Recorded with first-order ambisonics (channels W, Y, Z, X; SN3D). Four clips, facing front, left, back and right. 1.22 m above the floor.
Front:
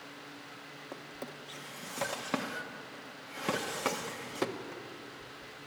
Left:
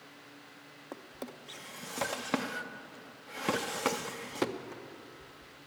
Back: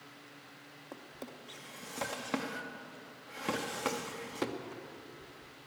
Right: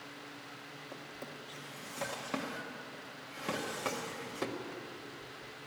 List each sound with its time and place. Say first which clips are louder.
0.9 s a drawer: left 5 dB, front 2 dB; 75° left, 0.6 m